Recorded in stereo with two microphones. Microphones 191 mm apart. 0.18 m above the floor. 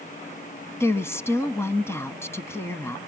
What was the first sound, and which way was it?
A woman speaking, 15° left (ahead or behind).